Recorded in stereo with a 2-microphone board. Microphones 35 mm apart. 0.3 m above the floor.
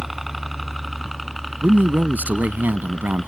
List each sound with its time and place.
0.0 s a helicopter: 5° right (ahead or behind); by 3.3 s 10° left (ahead or behind)
1.6 s a man speaking: 60° right (ahead or behind)